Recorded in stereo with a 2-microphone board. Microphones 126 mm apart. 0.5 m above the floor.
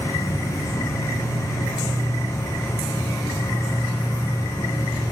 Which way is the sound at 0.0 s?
20° left (ahead or behind).